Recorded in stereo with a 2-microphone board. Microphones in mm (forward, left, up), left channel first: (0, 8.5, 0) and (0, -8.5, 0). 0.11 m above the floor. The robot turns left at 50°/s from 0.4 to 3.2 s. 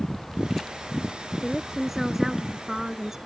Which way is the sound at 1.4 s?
Centre (ahead or behind).